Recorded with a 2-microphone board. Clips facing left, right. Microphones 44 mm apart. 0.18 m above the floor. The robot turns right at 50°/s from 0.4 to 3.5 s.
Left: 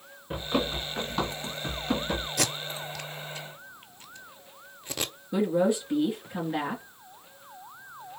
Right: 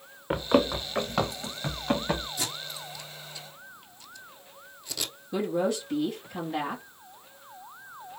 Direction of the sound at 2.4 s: 85° left.